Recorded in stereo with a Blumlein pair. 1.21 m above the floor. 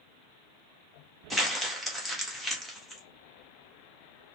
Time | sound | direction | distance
1.3 | crumpling | straight ahead | 1.4 m